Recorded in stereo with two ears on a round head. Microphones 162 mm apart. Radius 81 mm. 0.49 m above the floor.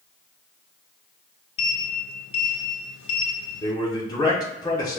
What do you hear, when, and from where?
1.6 s a sliding door: 75° left (ahead or behind), 0.6 m
3.6 s a man speaking: 20° left (ahead or behind), 1.0 m